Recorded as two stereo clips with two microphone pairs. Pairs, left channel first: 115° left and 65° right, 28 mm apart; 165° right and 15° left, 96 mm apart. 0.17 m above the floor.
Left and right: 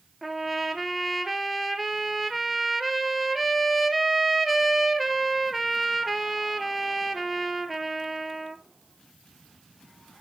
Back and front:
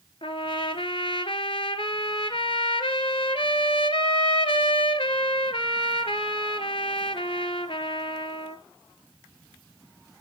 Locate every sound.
0.2 s a trumpet: 160° right, 0.9 m